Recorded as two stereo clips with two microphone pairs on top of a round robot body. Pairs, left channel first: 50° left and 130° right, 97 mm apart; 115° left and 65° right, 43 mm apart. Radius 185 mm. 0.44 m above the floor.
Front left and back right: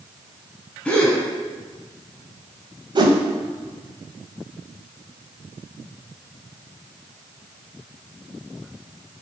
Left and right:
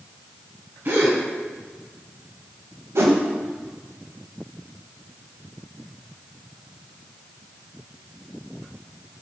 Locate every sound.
0.8 s a gasp: 30° right, 1.3 m
3.0 s a whoosh: 85° right, 0.8 m